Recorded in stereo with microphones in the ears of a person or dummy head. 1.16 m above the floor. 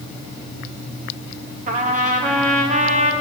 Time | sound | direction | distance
1.7 | a trumpet | 40° right (ahead or behind) | 2 m